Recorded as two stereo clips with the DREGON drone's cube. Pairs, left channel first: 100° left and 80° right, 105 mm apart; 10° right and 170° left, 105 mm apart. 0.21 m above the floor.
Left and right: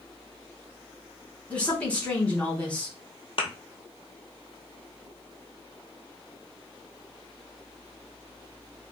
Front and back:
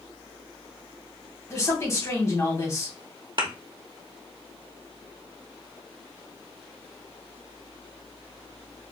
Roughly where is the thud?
Behind left.